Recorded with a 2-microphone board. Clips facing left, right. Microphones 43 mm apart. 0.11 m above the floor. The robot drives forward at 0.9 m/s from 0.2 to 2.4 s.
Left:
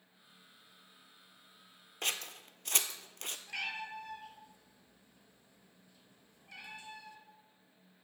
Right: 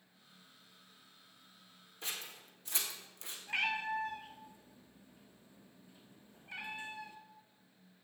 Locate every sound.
2.0 s scissors: 65° left (ahead or behind), 0.7 m
3.5 s a cat meowing: 30° right (ahead or behind), 1.1 m